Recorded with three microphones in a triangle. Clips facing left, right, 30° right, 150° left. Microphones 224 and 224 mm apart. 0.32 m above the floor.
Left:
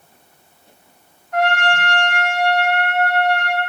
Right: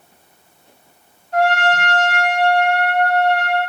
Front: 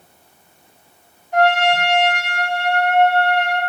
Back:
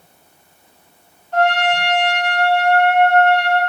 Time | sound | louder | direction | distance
1.3 | a trumpet | right 2 dB, front 1 dB | 95° right | 1.7 m